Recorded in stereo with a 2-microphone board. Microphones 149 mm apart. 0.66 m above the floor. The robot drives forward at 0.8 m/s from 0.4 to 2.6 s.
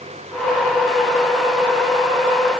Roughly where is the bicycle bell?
No bicycle bell in this recording.